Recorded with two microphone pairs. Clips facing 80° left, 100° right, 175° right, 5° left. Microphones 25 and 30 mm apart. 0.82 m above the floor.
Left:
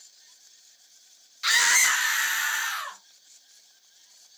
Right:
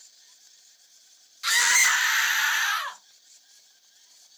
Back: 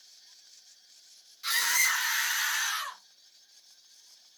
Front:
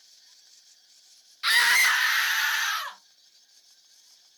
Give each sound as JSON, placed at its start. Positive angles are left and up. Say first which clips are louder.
{"t": 1.4, "sound": "a scream", "louder": "even, front 7 dB", "azimuth_deg": 0, "distance_m": 0.8}